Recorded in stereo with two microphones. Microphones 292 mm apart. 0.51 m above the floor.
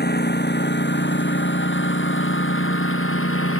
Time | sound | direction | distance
0.0 | a lawn mower | 35° left (ahead or behind) | ?